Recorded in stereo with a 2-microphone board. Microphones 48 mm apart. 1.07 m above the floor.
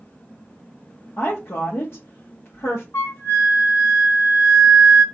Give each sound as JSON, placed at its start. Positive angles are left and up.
{"t": 1.2, "sound": "a woman speaking", "side_deg": 60, "distance_m": 0.9}
{"t": 2.9, "sound": "a flute", "side_deg": 60, "distance_m": 1.2}